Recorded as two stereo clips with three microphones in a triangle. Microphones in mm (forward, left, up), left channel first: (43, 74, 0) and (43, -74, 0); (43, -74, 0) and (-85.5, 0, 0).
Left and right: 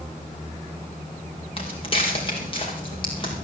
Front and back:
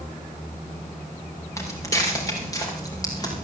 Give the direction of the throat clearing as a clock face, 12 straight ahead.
I don't hear throat clearing.